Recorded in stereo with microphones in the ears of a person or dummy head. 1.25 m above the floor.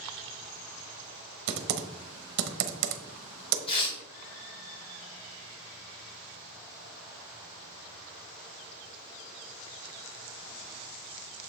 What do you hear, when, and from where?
1.5 s typing on a keyboard: 60° right (ahead or behind), 0.8 m
3.7 s tearing paper: 30° left (ahead or behind), 2.5 m